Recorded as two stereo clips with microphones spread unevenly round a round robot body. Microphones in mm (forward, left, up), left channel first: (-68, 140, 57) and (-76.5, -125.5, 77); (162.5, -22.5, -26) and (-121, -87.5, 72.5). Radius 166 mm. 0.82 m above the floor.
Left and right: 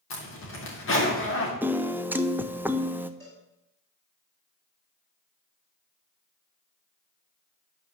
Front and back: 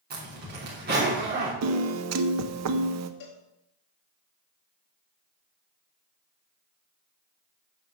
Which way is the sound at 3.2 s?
5° left.